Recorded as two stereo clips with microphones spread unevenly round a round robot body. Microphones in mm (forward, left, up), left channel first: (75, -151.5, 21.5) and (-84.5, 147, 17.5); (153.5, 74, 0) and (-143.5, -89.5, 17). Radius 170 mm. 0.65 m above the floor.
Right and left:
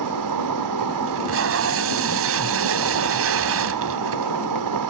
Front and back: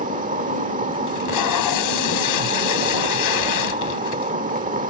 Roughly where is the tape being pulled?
Ahead left.